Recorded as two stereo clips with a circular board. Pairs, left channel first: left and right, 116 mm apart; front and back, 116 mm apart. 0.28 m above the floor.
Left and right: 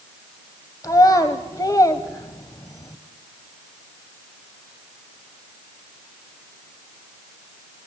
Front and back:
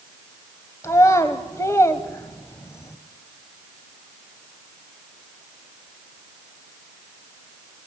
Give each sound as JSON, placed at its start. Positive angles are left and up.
{"t": 0.8, "sound": "a child speaking", "azimuth_deg": 50, "distance_m": 1.2}